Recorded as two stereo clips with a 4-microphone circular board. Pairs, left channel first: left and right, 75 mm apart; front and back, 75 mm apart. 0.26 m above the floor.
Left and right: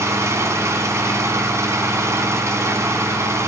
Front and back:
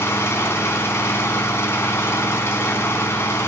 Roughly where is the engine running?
Ahead right.